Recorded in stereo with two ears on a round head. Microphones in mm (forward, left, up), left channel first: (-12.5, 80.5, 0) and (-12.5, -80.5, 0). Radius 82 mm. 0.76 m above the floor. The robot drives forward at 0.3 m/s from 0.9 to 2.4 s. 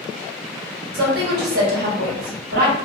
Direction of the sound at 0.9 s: 60° right (ahead or behind).